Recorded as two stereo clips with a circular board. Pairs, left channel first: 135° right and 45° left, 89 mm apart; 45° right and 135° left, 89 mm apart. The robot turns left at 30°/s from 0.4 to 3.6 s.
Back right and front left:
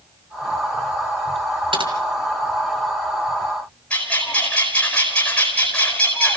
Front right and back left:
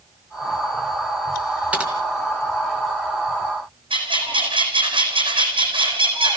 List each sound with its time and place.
1.7 s typing on a keyboard: 60° left, 3 m; by 1.9 s 55° left, 3 m
3.9 s a bird: 150° left, 4.5 m